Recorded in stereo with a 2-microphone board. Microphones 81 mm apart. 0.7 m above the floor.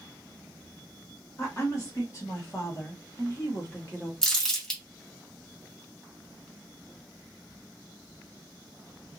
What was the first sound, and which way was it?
A woman speaking, 35° left (ahead or behind).